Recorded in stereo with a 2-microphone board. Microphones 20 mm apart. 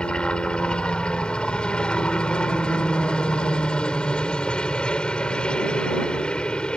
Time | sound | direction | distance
0.0 | a helicopter | 55° left (ahead or behind) | ?